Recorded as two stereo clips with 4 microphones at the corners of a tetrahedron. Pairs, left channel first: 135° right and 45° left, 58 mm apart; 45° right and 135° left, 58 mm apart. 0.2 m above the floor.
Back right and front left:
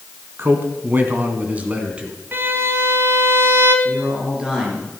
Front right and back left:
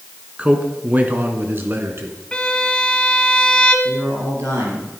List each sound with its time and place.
0.4 s a man speaking: 75° left, 2.0 m; by 2.2 s 115° left, 2 m
2.3 s a violin: 20° left, 1.2 m
3.9 s a man speaking: 120° left, 5 m